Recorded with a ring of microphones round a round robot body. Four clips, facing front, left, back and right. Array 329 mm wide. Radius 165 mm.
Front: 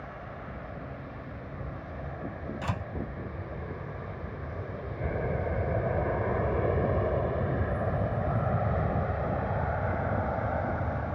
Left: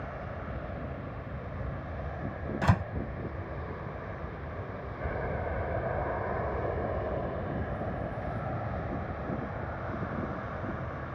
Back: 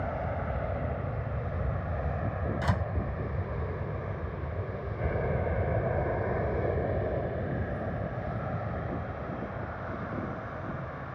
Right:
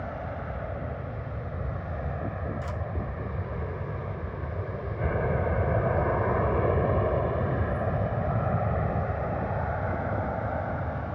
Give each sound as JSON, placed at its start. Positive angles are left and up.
{"t": 0.0, "sound": "an aircraft", "azimuth_deg": -155}
{"t": 2.6, "sound": "a door slam", "azimuth_deg": 100}